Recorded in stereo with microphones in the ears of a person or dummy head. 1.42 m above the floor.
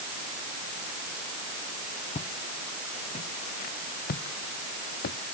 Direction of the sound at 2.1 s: 40° left (ahead or behind).